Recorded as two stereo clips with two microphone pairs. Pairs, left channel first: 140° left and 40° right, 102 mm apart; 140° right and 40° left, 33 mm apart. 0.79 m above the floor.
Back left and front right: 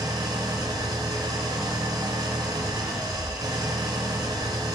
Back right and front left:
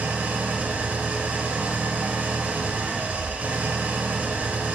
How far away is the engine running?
About 1.2 m.